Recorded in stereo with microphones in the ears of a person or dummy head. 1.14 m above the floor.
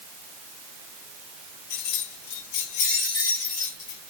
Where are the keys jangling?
50° left (ahead or behind), 1.2 m; by 4.0 s 75° left (ahead or behind), 1.7 m.